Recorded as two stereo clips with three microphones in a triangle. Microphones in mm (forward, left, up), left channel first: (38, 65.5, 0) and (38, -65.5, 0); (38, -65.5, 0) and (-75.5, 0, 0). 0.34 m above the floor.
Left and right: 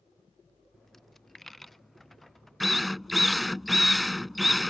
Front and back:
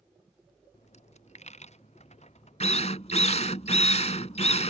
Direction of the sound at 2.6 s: Straight ahead.